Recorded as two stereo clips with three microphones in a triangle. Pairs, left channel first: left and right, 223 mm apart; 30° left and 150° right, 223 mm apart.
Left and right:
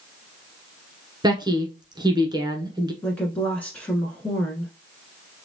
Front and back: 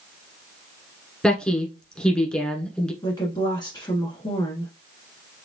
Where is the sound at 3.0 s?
20° left, 1.1 m.